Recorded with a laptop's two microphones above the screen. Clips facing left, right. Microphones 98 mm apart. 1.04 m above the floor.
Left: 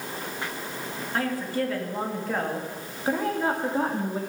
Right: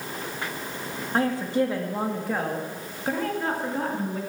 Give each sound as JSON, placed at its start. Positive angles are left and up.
{"t": 1.1, "sound": "a woman speaking", "side_deg": -25, "distance_m": 2.0}